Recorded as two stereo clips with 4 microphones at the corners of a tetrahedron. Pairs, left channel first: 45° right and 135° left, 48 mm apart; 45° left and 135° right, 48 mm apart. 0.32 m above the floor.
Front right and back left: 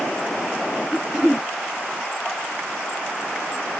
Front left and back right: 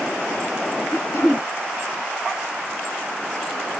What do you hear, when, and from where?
0.9 s throat clearing: 60° left, 1.5 m